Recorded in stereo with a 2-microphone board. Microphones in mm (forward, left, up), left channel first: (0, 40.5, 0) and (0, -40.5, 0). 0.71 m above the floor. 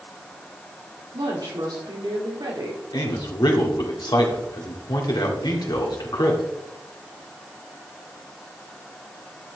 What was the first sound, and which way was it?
A woman speaking, 60° right (ahead or behind).